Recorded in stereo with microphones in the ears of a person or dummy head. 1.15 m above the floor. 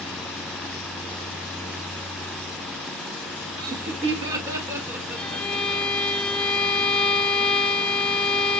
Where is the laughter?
55° right (ahead or behind), 0.9 m; by 5.8 s 5° right (ahead or behind), 3.5 m.